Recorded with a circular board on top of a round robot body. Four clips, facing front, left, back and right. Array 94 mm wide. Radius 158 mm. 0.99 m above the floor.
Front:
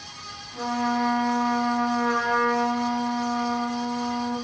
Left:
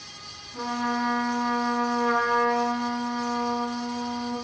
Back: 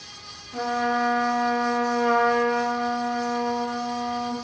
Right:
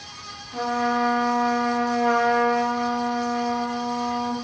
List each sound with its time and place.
0.5 s a trumpet: 130° right, 1.5 m